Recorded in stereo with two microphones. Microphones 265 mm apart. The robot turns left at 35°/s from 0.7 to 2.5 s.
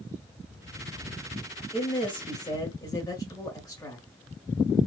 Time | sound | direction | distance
1.7 | a woman speaking | 20° left (ahead or behind) | 1.2 m